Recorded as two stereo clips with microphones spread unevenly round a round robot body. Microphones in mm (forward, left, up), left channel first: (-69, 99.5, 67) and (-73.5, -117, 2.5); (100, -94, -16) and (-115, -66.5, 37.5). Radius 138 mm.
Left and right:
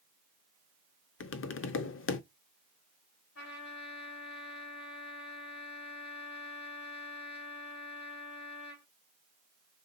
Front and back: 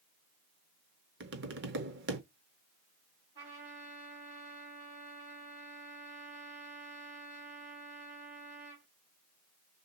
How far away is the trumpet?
About 4 m.